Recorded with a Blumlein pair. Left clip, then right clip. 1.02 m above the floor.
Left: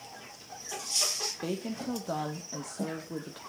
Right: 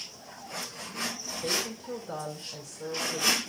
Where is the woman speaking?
40° left, 1.8 m.